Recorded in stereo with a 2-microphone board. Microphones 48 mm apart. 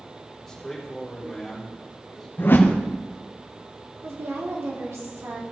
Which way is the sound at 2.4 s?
45° left (ahead or behind).